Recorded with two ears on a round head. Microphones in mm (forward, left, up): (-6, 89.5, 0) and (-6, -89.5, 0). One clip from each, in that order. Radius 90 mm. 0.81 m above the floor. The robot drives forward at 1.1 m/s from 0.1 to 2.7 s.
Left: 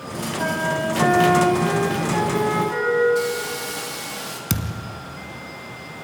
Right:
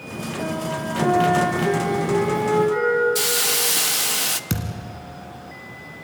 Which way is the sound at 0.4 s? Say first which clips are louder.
Left 5 dB; 70° left (ahead or behind).